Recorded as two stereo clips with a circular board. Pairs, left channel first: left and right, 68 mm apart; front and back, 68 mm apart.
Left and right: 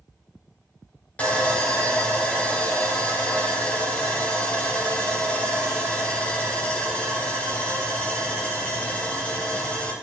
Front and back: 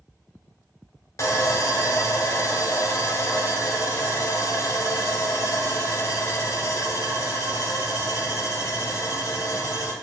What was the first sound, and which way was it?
Sawing, 25° left.